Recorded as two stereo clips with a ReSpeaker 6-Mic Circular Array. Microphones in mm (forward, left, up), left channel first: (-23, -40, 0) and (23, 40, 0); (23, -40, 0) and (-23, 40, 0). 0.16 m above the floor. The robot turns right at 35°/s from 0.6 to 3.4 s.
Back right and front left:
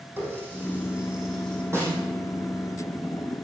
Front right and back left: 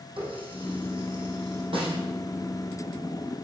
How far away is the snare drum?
About 5 m.